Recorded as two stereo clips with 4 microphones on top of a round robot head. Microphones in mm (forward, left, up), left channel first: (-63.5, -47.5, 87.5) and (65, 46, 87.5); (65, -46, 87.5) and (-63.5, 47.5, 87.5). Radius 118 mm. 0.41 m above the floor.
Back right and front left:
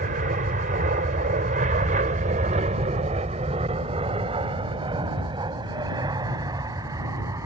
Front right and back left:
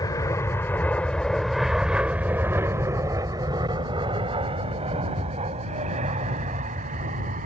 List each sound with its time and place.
0.0 s an aircraft: 30° left; by 7.5 s 105° left